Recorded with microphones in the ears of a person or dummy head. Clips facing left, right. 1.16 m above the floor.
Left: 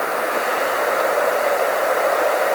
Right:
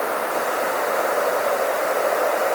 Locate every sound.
Only background noise.